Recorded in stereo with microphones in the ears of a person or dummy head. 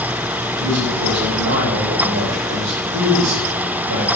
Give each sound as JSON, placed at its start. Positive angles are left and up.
{"t": 0.6, "sound": "a man speaking", "side_deg": -80, "distance_m": 9.5}